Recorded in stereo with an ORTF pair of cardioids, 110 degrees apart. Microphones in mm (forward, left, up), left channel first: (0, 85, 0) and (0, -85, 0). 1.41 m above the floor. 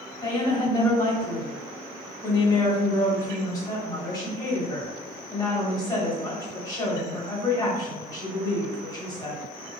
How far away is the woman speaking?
About 1.4 m.